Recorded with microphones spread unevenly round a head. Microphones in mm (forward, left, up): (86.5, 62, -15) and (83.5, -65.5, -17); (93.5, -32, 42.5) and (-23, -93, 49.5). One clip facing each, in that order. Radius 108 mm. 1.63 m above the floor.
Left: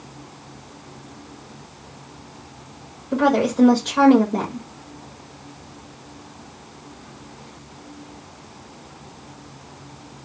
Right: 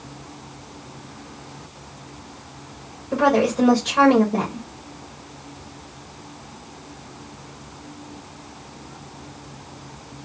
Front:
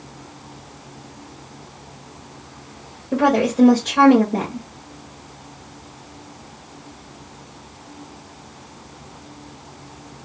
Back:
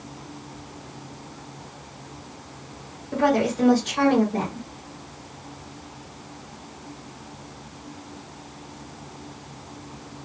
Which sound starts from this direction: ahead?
A woman speaking, at 3.1 s.